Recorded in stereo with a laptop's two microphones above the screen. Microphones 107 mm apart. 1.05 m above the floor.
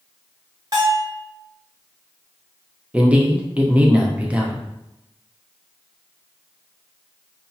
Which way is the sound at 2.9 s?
10° right (ahead or behind).